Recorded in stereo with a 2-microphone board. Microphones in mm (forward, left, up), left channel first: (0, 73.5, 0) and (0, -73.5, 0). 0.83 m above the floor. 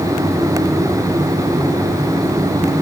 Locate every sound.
Only background noise.